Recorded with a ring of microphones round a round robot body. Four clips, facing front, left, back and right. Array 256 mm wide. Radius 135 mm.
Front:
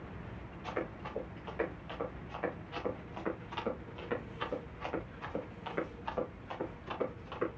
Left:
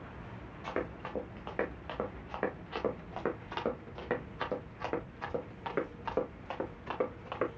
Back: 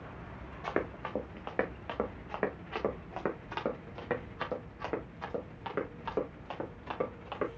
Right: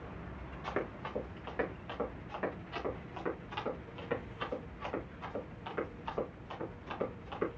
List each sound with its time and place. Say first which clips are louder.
0.6 s running footsteps: left 1 dB, back 5 dB; 175° left, 2.5 m; by 7.5 s 120° left, 5.5 m